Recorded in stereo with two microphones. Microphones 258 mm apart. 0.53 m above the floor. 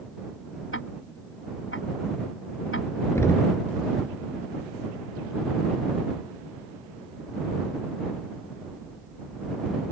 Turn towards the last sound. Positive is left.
turn(degrees=10)  # may be behind; listen again after turning